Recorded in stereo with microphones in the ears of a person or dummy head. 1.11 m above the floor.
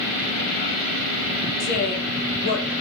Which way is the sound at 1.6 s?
50° left (ahead or behind).